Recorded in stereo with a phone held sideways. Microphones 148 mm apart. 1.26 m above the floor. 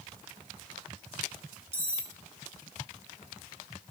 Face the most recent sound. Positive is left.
turn(degrees=-15)  # may be behind; listen again after turning